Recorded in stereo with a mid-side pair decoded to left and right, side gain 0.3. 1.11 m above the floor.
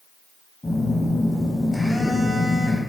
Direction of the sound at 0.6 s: 35° left.